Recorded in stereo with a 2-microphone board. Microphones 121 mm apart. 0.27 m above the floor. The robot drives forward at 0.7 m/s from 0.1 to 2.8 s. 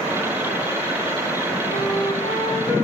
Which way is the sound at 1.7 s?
60° left (ahead or behind).